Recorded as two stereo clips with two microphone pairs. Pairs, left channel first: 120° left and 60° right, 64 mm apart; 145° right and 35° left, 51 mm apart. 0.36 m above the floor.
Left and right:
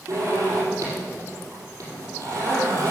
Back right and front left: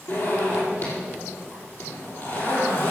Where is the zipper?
100° right, 4.5 m.